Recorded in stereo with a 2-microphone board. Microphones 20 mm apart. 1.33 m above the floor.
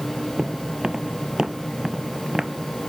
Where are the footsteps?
50° right (ahead or behind); by 2.5 s 25° right (ahead or behind).